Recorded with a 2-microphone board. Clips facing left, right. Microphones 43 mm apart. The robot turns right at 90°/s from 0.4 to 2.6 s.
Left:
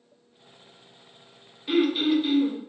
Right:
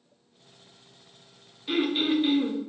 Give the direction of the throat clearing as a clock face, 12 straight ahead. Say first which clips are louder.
Left 3 dB; 6 o'clock.